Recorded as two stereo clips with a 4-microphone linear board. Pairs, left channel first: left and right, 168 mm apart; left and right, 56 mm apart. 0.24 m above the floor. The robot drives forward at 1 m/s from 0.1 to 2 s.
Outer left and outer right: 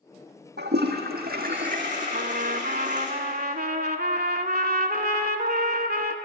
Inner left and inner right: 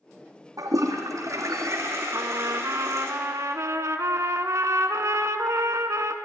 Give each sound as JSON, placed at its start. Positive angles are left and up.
{"t": 0.6, "sound": "a toilet flushing", "side_deg": -85, "distance_m": 1.7}
{"t": 2.1, "sound": "a trumpet", "side_deg": -65, "distance_m": 0.7}